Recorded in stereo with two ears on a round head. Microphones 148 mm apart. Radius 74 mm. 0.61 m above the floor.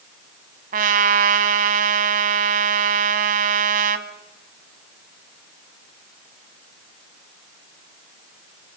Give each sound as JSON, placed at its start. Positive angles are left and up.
{"t": 0.7, "sound": "a trumpet", "side_deg": -55, "distance_m": 1.6}